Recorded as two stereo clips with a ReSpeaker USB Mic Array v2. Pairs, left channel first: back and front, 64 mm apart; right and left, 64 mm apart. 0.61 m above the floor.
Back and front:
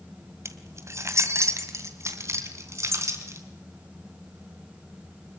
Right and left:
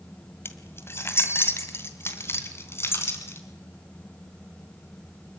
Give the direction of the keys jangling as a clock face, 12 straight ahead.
1 o'clock.